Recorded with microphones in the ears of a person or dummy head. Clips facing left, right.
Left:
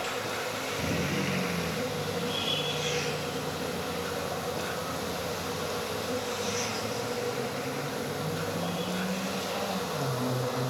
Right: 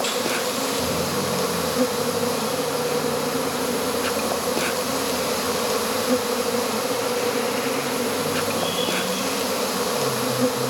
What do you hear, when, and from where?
0.0 s an insect: 80° right, 1.2 m